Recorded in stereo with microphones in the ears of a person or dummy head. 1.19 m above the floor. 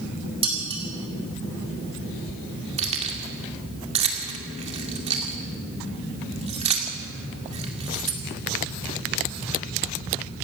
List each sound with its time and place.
0.4 s dishes clattering: 30° right (ahead or behind), 4 m
2.8 s keys jangling: 35° right (ahead or behind), 2 m